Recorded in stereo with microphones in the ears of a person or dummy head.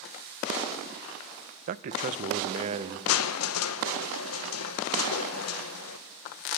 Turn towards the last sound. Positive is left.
turn(degrees=90)